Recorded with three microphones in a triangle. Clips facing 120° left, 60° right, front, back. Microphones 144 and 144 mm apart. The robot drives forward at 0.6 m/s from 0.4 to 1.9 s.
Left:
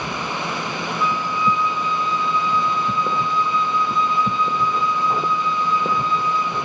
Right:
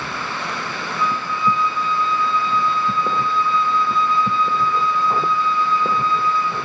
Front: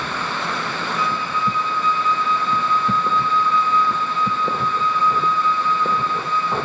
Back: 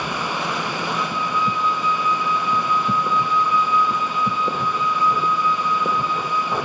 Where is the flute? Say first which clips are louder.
Right 1 dB, front 2 dB; 155° left, 2 m; by 6.5 s 160° left, 2.5 m.